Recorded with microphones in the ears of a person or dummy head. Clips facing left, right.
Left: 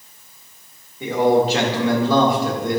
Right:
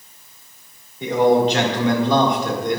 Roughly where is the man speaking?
Centre.